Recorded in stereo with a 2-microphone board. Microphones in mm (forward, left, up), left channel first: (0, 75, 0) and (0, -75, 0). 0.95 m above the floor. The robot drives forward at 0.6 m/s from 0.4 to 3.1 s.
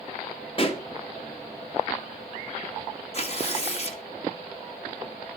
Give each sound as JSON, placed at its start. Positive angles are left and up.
{"t": 0.6, "sound": "a pop", "side_deg": 40, "distance_m": 1.8}
{"t": 3.1, "sound": "tearing paper", "side_deg": 45, "distance_m": 1.8}